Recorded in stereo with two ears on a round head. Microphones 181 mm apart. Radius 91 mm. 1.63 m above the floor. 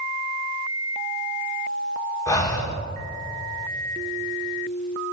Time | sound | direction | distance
2.3 | breathing | 15° left (ahead or behind) | 1.7 m